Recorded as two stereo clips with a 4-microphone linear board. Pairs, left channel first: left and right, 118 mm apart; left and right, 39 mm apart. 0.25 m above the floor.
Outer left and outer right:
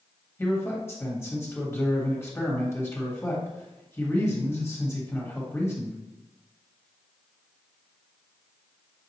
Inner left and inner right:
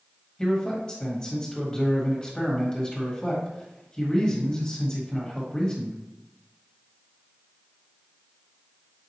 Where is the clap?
I don't hear a clap.